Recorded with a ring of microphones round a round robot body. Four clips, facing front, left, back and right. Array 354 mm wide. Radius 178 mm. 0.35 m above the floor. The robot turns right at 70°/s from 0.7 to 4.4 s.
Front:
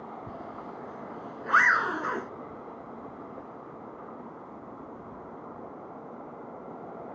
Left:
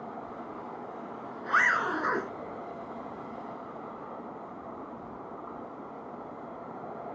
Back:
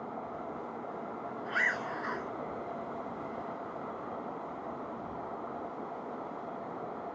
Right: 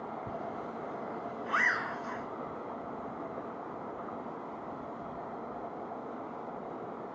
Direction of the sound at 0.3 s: 40° right.